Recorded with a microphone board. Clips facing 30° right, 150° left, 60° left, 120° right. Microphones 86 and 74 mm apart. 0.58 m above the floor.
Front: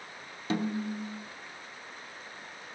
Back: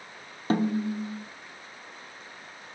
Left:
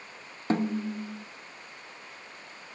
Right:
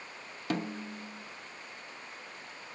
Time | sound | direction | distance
0.5 | a snare drum | 115° left | 0.8 m